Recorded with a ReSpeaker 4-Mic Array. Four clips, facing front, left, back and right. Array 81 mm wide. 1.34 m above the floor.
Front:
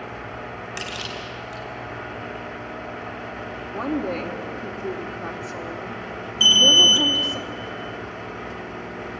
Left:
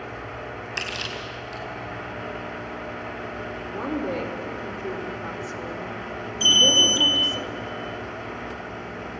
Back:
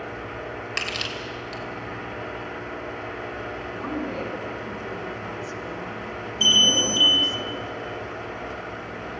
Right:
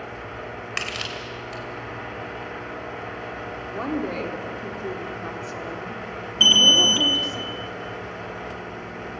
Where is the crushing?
115° right, 3 m.